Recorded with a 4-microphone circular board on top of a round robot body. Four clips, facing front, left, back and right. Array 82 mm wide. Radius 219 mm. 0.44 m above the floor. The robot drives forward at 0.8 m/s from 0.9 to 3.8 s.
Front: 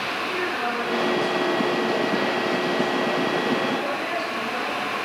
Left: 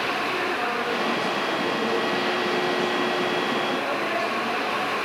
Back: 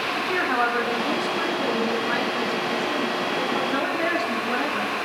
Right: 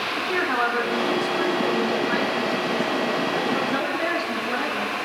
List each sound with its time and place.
0.1 s a woman speaking: 135° right, 8 m; by 4.9 s 145° right, 9.5 m